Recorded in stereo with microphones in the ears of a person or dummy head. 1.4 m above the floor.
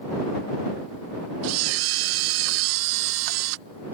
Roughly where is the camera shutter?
Right.